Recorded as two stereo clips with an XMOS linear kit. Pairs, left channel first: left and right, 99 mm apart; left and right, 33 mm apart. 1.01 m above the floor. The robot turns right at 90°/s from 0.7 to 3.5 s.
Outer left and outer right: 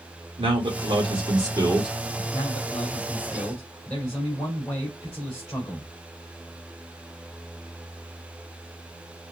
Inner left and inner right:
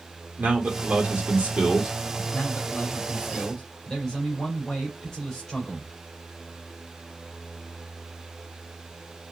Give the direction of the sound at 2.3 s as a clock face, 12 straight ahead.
10 o'clock.